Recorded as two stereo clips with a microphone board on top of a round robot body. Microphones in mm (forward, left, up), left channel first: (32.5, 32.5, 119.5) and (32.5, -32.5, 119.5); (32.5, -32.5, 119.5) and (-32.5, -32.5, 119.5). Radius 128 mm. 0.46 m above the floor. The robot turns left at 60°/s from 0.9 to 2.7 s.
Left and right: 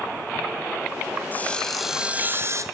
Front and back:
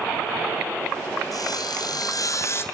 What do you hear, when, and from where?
1.3 s sawing: 30° left, 3 m; by 2.6 s 50° right, 3 m